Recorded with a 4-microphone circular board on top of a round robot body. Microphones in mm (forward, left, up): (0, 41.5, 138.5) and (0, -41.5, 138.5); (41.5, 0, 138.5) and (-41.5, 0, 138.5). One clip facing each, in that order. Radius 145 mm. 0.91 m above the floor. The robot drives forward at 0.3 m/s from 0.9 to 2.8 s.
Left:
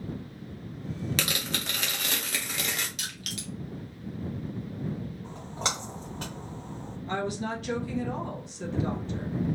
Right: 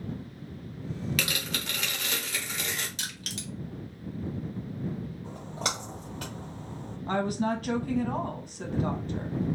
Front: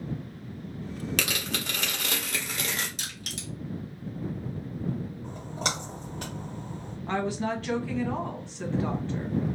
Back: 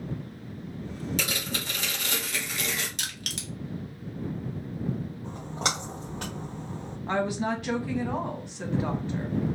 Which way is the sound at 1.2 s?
30° left.